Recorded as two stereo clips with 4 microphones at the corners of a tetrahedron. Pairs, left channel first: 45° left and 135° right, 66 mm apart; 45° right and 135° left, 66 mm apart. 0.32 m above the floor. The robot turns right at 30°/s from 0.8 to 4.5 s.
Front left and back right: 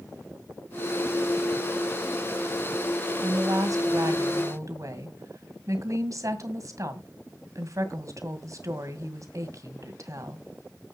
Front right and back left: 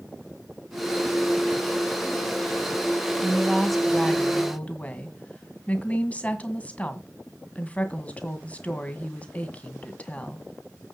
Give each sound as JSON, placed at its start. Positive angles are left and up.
{"t": 3.2, "sound": "a woman speaking", "azimuth_deg": -150, "distance_m": 2.0}